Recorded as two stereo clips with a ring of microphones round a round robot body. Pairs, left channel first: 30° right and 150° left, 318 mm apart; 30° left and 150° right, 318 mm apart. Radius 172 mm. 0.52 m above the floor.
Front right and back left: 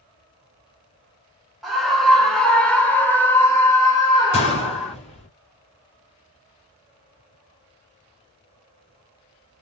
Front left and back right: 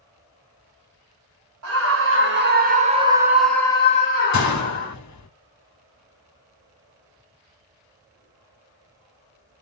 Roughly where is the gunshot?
Ahead left.